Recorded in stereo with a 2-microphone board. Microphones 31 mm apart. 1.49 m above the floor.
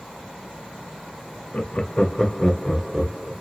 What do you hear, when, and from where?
1.5 s laughter: 45° left (ahead or behind), 0.6 m; by 3.3 s 5° right (ahead or behind), 1.1 m